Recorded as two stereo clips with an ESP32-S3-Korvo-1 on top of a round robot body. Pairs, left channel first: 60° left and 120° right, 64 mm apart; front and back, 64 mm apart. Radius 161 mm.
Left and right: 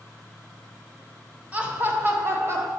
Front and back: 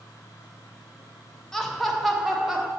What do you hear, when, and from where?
1.5 s laughter: 75° right, 1.3 m; by 2.7 s 100° right, 1.6 m